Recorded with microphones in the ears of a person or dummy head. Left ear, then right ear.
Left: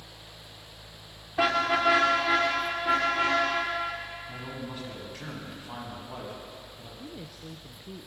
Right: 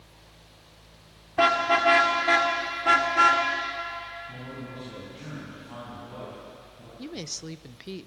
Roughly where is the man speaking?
Left.